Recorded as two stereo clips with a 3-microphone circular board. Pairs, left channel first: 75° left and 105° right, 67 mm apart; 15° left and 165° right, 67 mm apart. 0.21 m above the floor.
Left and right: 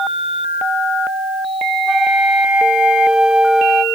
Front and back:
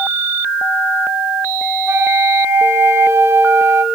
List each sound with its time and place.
1.9 s a flute: straight behind, 0.8 m